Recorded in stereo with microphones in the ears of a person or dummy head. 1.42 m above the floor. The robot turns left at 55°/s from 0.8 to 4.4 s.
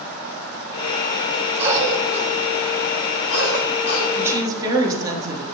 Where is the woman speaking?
10° right (ahead or behind), 3 m; by 5.4 s 25° right (ahead or behind), 3 m.